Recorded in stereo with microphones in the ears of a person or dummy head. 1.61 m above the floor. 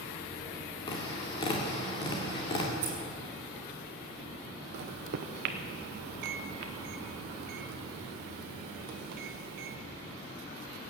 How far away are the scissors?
About 2.5 m.